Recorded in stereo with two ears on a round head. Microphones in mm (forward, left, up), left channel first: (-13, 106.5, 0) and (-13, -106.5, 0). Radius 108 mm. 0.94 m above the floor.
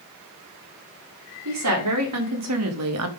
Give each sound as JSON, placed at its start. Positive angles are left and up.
{"t": 1.4, "sound": "a woman speaking", "side_deg": -80, "distance_m": 2.5}